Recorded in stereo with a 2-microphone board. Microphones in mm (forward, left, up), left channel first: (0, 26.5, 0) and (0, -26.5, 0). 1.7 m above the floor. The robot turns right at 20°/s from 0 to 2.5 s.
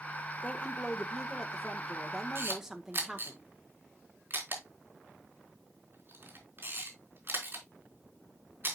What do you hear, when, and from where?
0.4 s a woman speaking: 150° left, 1.4 m; by 3.4 s 170° right, 1.4 m
2.4 s a camera shutter: 45° right (ahead or behind), 3.5 m